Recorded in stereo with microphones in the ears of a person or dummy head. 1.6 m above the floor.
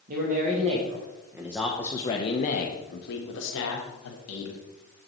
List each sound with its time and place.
0.1 s a man speaking: 45° right (ahead or behind), 1.8 m; by 4.6 s 80° left, 2.5 m